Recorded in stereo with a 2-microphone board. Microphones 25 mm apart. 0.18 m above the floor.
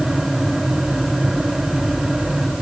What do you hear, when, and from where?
Only background noise.